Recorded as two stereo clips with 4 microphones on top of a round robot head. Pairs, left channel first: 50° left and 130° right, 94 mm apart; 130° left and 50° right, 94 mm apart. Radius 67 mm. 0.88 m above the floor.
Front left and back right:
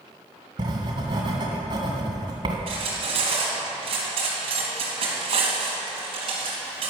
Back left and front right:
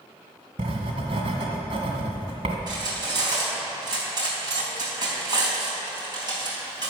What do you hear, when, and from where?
0.6 s writing: 85° right, 1.9 m
2.7 s cutlery clinking: 100° right, 4 m